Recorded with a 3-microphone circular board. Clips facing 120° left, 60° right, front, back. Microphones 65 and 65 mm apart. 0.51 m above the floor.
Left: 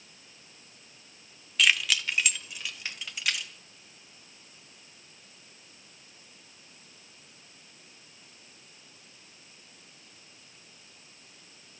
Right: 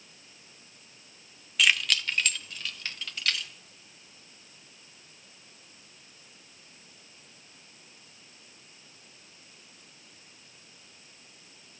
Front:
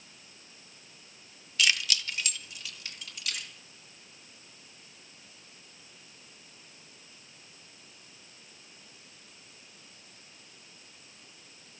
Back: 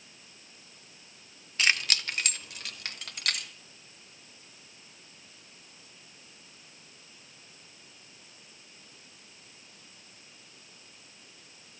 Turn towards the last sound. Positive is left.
turn(degrees=-165)